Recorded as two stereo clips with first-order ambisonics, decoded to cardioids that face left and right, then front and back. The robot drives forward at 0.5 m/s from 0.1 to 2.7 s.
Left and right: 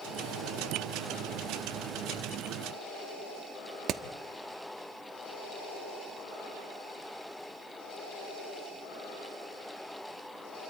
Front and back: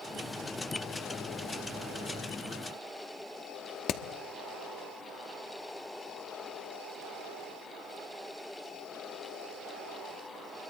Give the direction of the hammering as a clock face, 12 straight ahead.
1 o'clock.